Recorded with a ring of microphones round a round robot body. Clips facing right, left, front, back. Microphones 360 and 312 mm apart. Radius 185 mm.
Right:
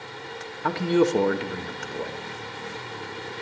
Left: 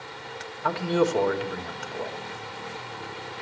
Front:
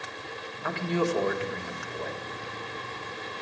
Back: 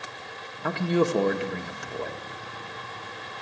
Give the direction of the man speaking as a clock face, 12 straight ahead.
5 o'clock.